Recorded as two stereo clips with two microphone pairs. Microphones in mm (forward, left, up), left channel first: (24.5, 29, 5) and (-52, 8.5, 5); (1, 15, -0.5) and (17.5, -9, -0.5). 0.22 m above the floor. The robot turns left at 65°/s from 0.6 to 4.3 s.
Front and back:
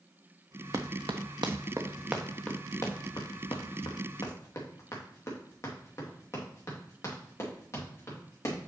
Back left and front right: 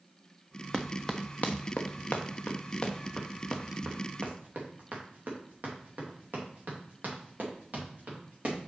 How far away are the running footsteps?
About 0.8 m.